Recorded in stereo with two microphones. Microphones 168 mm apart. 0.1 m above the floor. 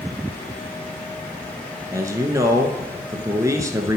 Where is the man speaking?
20° right (ahead or behind), 1.1 m.